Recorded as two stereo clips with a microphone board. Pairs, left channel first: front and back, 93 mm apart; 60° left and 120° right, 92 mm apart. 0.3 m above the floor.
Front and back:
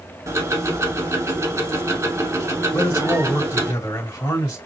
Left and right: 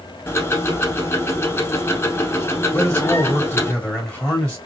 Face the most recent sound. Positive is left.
turn(degrees=-10)